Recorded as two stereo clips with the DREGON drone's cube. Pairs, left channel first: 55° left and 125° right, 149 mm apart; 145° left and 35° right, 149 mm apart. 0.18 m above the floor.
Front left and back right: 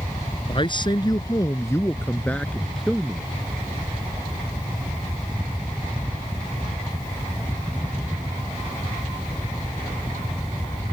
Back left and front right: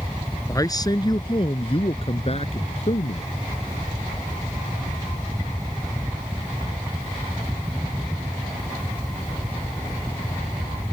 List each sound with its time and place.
0.5 s a man speaking: 85° left; by 3.3 s 150° left